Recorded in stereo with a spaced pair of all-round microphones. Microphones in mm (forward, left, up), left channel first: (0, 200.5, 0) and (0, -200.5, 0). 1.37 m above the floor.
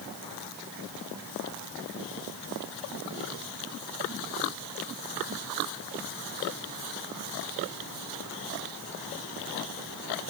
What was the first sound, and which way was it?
Only background noise.